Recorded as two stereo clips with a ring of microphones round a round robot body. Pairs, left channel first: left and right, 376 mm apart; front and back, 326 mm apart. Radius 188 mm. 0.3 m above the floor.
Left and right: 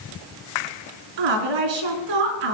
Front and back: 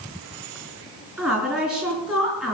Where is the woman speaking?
90° right, 3.5 m.